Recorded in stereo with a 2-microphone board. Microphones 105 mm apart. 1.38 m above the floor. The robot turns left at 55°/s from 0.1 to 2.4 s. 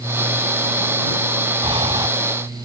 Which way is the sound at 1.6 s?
65° right (ahead or behind).